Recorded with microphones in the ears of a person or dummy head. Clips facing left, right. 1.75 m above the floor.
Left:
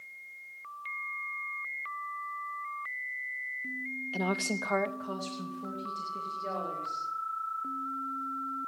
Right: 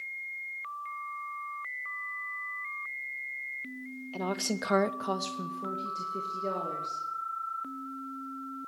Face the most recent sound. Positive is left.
turn(degrees=-55)  # may be behind; listen again after turning